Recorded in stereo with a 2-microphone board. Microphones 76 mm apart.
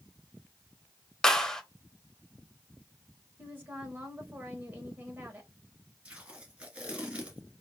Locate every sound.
1.2 s a clap: 5° left (ahead or behind), 0.8 m
3.4 s a woman speaking: 25° right (ahead or behind), 1.3 m
6.0 s tape being pulled: 15° right (ahead or behind), 1.6 m